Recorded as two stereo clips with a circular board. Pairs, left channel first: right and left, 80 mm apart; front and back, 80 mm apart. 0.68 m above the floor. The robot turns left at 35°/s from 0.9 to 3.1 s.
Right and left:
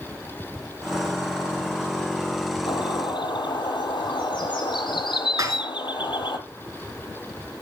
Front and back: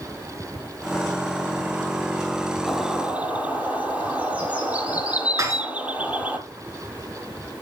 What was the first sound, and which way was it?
A bird, 90° right.